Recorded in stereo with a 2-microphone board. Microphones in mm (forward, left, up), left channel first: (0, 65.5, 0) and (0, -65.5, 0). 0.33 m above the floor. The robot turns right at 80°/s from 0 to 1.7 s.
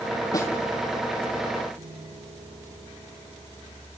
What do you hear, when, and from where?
0.3 s a snare drum: 30° left (ahead or behind), 2.5 m; by 0.5 s 10° left (ahead or behind), 2.5 m
1.8 s a piano: 70° right (ahead or behind), 3.5 m